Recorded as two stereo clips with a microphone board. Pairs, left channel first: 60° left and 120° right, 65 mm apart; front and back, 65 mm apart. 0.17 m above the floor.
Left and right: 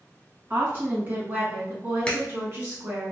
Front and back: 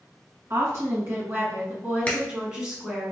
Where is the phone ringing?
I don't hear a phone ringing.